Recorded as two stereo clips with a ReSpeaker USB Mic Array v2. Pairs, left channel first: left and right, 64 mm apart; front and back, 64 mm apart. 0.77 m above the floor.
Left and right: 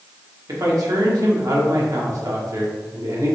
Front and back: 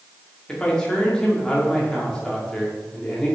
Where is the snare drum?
No snare drum in this recording.